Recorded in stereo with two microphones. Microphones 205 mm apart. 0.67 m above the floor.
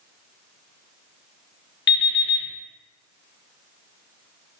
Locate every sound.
1.9 s an alarm clock: 60° left (ahead or behind), 0.6 m